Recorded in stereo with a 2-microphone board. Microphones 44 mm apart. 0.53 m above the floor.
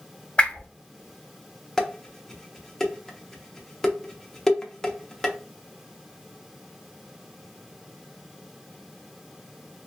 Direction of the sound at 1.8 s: 10° left (ahead or behind).